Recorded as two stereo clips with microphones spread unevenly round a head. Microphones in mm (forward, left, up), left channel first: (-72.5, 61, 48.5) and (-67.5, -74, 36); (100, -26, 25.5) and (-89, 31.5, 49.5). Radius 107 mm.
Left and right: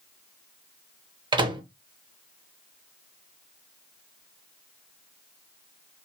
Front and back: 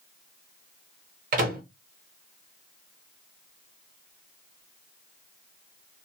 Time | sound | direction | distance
1.3 | a microwave | 145° right | 0.8 m